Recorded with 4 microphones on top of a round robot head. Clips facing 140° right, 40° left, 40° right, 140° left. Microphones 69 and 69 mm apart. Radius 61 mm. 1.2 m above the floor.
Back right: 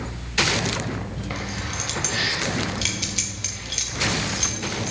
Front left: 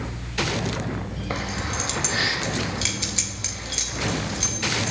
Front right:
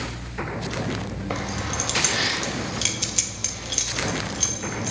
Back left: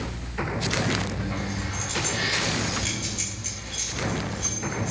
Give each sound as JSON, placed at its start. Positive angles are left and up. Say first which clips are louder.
{"t": 1.3, "sound": "keys jangling", "louder": "front left 4 dB, front right 3 dB", "azimuth_deg": -20, "distance_m": 1.0}